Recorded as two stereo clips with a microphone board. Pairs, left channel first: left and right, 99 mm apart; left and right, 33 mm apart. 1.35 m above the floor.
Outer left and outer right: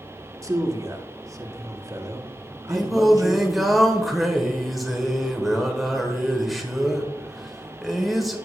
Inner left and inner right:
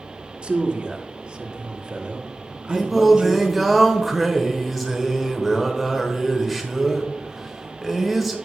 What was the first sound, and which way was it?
A man speaking, 35° right (ahead or behind).